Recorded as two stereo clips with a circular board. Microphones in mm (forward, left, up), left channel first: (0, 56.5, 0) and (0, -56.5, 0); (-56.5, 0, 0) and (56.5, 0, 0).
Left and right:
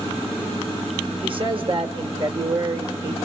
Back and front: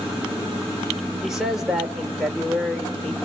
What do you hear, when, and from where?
1.2 s a man speaking: 85° right, 1.7 m